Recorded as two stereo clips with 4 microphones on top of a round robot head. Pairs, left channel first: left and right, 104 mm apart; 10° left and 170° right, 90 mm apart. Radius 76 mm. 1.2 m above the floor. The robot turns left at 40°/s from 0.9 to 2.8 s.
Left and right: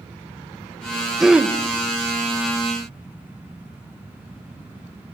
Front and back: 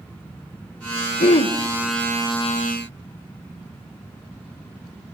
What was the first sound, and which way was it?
Throat clearing, 5° right.